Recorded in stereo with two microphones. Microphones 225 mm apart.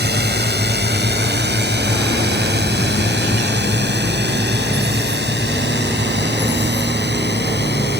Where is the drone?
45° right (ahead or behind); by 8.0 s 50° right (ahead or behind).